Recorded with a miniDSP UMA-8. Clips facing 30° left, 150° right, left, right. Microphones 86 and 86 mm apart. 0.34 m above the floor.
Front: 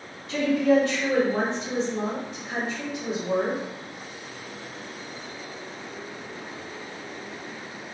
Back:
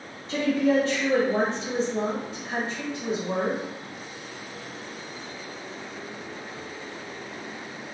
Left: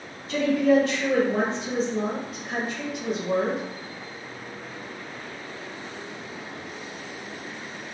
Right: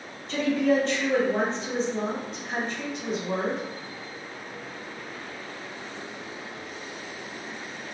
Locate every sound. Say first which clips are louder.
0.3 s a woman speaking: front 2 dB, left 3 dB; 175° left, 1.9 m